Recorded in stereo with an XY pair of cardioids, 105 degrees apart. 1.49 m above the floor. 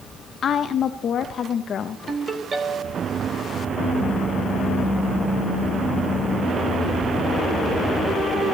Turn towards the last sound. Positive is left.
turn(degrees=-40)